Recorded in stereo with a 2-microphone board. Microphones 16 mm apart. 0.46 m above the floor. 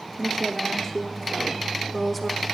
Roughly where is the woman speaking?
Left.